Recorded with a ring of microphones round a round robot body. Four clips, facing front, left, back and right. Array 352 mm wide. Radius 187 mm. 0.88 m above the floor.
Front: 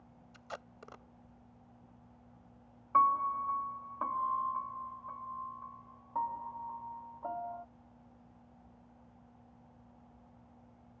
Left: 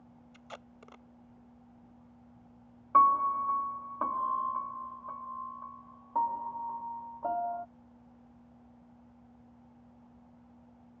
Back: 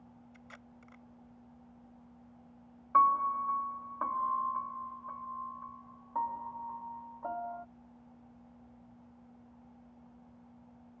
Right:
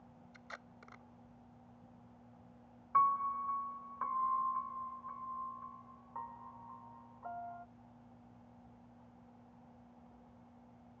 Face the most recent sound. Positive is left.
turn(degrees=95)